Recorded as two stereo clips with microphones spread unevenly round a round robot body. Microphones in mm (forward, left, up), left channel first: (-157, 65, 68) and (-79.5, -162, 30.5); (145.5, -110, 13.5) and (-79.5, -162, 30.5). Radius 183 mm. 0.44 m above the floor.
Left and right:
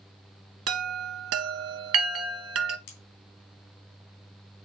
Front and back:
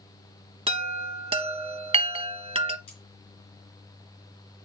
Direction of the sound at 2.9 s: 85° left.